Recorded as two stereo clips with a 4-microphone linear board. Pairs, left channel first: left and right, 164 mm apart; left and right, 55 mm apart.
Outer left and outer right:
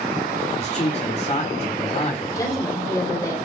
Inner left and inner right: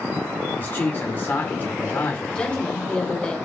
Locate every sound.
0.6 s a man speaking: 40° left (ahead or behind), 2 m
2.3 s a woman speaking: 20° left (ahead or behind), 2.5 m